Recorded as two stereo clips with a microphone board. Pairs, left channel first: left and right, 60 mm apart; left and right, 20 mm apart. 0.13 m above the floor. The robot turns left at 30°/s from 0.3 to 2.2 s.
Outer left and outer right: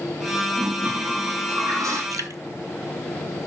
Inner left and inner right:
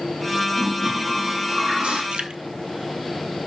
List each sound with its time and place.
0.5 s a toilet flushing: 35° right, 3.5 m; by 2.0 s 80° right, 3.5 m
2.1 s dripping: 75° right (ahead or behind), 0.8 m; by 2.4 s 70° right (ahead or behind), 0.8 m